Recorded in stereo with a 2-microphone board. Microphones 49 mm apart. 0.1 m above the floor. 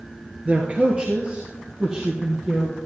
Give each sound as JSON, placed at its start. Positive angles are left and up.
{"t": 0.5, "sound": "a man speaking", "side_deg": -30, "distance_m": 1.3}